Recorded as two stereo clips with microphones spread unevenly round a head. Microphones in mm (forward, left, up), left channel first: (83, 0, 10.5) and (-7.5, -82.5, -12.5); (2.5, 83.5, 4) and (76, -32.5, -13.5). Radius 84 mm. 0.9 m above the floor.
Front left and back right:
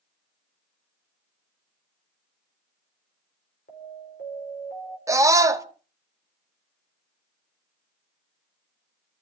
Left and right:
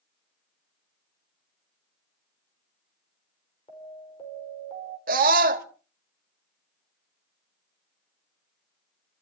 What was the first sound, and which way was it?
An alarm, 75° left.